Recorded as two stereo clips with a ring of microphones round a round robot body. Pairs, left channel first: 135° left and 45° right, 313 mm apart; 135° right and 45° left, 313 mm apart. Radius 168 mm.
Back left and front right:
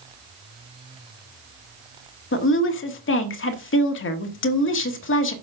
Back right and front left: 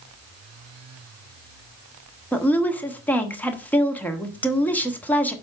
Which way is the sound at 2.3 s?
145° left.